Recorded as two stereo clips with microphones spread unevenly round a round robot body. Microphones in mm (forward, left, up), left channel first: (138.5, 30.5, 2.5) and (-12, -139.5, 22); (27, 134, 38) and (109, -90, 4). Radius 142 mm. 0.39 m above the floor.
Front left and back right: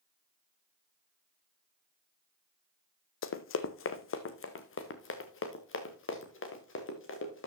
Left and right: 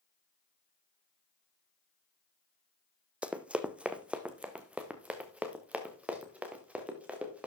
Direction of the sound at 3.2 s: 20° left.